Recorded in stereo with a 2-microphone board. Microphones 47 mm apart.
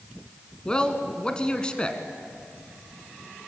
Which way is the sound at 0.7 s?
20° left (ahead or behind).